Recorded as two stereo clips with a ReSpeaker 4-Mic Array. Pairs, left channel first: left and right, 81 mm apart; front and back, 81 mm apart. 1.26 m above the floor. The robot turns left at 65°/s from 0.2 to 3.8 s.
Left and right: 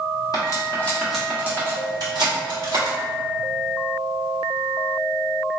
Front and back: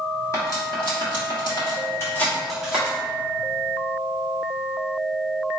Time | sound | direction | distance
0.3 | cutlery clinking | 50° left | 1.5 m